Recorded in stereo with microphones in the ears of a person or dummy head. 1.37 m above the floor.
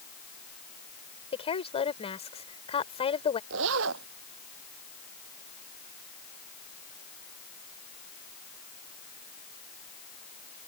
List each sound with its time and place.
1.3 s a woman speaking: 30° left (ahead or behind)
3.5 s a zipper: 70° right (ahead or behind)